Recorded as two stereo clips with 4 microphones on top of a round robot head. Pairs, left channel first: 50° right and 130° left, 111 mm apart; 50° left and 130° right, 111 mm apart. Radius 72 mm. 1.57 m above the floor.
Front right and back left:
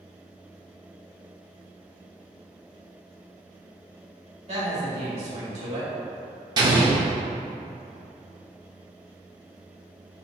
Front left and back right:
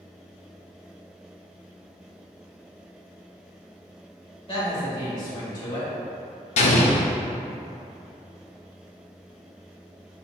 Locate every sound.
4.5 s a woman speaking: 95° left, 1.4 m
6.6 s an explosion: 75° left, 0.6 m